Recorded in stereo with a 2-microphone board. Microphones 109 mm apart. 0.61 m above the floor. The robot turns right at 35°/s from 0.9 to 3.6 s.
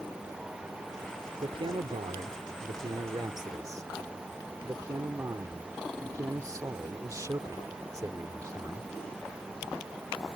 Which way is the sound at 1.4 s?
115° right.